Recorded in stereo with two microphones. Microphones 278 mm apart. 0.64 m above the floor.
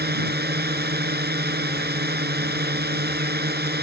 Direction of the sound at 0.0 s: 35° right (ahead or behind).